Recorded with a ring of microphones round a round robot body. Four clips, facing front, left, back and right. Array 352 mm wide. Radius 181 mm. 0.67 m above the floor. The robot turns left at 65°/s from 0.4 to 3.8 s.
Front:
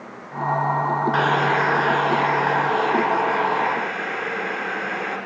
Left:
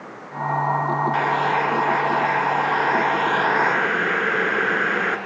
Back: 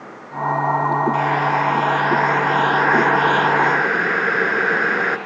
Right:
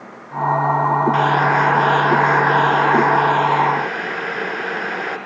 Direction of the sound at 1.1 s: 35° right.